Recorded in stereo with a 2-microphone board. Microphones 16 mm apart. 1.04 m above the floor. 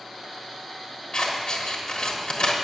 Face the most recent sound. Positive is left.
turn(degrees=55)  # may be behind; listen again after turning